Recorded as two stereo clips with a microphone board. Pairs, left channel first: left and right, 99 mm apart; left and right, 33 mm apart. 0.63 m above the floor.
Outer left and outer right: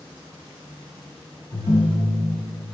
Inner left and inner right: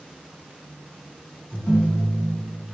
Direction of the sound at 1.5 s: 65° left (ahead or behind).